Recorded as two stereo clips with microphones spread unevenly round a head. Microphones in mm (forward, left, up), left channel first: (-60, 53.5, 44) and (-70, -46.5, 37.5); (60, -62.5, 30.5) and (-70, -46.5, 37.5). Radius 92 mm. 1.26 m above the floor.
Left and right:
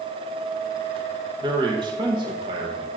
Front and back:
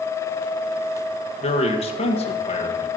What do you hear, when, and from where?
1.4 s a man speaking: 45° right, 1.6 m